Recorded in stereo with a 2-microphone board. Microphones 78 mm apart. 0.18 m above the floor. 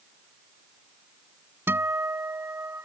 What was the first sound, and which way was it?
A guitar, 30° right (ahead or behind).